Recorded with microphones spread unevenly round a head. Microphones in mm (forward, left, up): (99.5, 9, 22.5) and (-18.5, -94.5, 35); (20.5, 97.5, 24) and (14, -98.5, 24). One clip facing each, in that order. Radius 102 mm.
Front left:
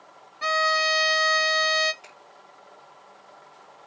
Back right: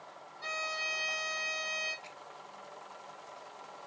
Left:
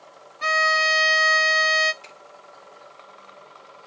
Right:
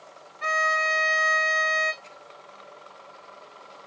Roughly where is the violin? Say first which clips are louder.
Front left 16 dB, left 3 dB; ahead left.